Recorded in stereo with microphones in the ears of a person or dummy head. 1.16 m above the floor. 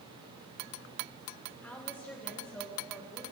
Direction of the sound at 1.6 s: Centre (ahead or behind).